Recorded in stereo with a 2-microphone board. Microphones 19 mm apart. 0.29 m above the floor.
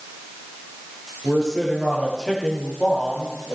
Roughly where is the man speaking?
Centre.